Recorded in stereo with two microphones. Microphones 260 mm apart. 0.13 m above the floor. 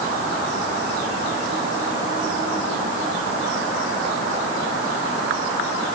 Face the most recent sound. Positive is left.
No sound to turn to.